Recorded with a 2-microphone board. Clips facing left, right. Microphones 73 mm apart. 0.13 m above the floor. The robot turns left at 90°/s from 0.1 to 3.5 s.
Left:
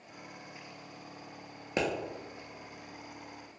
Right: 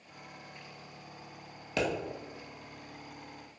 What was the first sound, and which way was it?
A pop, 20° left (ahead or behind).